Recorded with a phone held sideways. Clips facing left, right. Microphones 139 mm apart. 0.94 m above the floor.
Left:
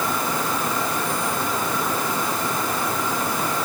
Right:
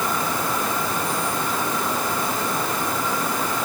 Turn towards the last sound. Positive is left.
No sound to turn to.